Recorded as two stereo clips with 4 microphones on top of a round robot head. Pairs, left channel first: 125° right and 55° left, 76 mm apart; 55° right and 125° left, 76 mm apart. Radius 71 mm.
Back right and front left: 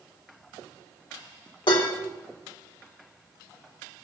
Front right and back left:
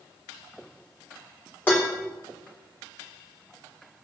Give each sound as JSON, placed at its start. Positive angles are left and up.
{"t": 1.7, "sound": "dishes clattering", "azimuth_deg": -125, "distance_m": 2.5}